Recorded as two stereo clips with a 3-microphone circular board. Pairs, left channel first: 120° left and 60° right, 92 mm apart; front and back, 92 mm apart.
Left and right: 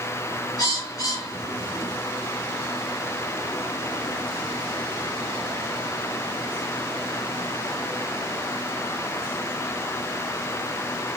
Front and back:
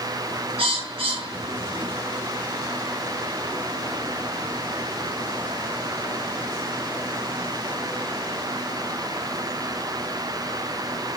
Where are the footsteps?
No footsteps in this recording.